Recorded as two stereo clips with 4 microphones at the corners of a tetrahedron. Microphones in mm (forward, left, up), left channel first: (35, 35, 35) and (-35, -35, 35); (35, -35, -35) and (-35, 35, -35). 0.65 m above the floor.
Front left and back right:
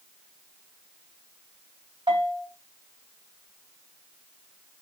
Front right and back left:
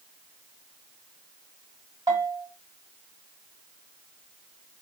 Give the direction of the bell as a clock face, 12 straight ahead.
6 o'clock.